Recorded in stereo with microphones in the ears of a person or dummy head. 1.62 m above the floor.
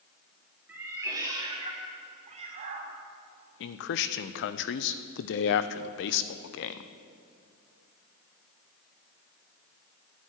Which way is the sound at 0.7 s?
10° right (ahead or behind).